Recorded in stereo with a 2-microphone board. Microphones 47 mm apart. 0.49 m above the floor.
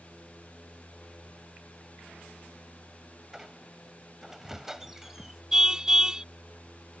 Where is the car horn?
15° right (ahead or behind).